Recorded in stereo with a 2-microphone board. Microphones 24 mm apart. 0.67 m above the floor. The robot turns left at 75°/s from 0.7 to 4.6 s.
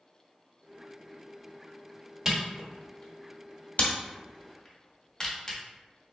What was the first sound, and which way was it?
A camera shutter, 20° right (ahead or behind).